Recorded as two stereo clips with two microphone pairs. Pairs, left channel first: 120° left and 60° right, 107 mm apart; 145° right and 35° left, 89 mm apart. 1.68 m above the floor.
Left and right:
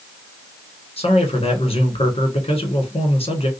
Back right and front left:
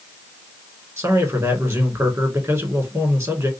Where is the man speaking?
95° left, 1.5 m.